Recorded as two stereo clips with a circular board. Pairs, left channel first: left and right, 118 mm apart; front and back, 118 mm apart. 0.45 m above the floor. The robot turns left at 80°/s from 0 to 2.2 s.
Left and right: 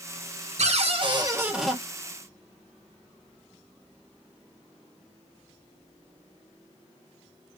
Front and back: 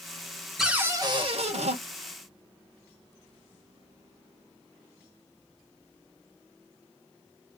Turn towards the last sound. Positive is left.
turn(degrees=140)